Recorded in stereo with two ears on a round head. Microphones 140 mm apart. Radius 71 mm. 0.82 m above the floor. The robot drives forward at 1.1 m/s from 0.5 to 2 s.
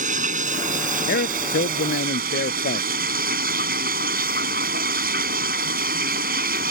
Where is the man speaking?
70° left (ahead or behind); by 2.9 s 65° left (ahead or behind).